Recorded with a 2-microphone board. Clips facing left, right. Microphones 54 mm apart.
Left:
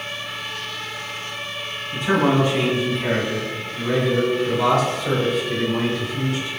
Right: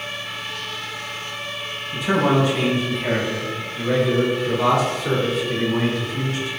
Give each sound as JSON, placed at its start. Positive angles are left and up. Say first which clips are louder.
{"t": 1.9, "sound": "a man speaking", "louder": "even", "side_deg": 40, "distance_m": 1.5}